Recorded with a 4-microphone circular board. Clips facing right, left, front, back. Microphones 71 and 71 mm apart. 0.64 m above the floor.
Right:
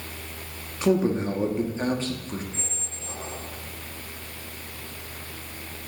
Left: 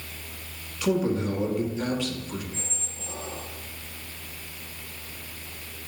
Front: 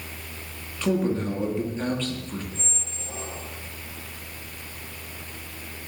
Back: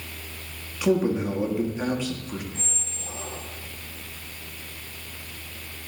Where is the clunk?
No clunk in this recording.